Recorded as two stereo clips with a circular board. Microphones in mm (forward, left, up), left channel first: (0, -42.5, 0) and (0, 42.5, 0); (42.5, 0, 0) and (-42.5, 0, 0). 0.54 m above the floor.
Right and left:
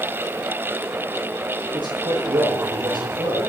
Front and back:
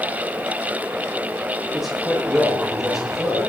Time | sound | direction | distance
1.7 | a man speaking | 95° left | 8 m